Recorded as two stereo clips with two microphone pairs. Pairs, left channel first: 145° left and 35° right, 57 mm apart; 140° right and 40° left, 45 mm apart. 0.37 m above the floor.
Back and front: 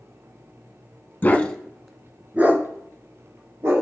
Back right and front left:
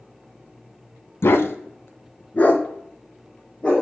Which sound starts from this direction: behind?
A dog barking, at 1.2 s.